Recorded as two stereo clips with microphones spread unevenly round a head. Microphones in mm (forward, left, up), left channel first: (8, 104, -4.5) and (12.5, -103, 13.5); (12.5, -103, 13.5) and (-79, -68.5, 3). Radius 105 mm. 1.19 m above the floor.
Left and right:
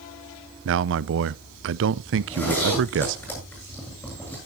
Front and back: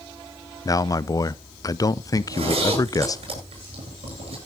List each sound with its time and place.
0.7 s a man speaking: 75° right, 0.5 m
2.2 s a zipper: 175° left, 8 m